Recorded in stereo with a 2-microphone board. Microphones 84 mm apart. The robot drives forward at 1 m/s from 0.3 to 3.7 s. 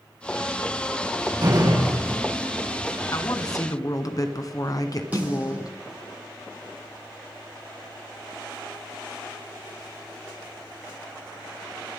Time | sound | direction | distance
1.4 | a door slam | 55° right (ahead or behind) | 6 m
3.1 | a woman speaking | 40° left (ahead or behind) | 1.8 m
5.1 | a snare drum | 20° right (ahead or behind) | 8.5 m